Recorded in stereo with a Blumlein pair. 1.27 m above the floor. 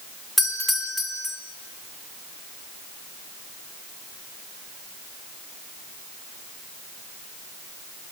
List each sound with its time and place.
0.4 s a doorbell: 5° left, 2 m